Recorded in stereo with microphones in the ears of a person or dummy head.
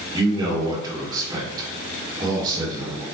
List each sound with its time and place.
0.1 s a man speaking: 25° right (ahead or behind), 2.5 m